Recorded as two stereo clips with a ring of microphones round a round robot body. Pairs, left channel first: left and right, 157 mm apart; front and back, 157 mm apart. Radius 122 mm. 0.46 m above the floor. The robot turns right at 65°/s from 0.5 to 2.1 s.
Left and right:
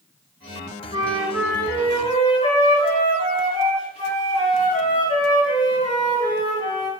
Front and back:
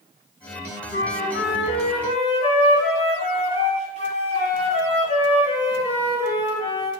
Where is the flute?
30° right, 3.5 m; by 6.9 s 45° left, 3.5 m.